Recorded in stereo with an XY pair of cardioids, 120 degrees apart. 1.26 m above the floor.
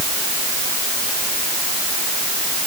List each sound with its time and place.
Only background noise.